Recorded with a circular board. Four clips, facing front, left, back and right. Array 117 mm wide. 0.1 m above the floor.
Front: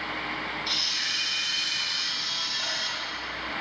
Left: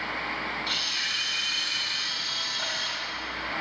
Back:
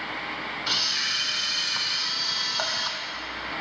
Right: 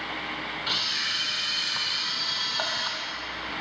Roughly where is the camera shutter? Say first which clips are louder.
Right 1 dB, back 3 dB; behind right.